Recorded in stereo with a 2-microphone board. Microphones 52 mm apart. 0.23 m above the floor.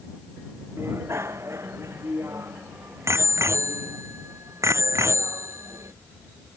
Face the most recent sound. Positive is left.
turn(degrees=-70)  # may be behind; listen again after turning